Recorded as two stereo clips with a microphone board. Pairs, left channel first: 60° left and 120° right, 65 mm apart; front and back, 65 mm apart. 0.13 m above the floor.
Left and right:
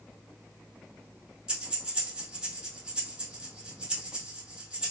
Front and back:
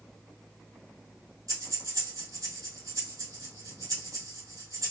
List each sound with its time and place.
1.5 s breathing: 165° left, 2.5 m